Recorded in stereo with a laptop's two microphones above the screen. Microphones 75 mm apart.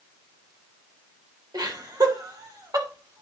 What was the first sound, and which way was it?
Laughter, 65° right (ahead or behind).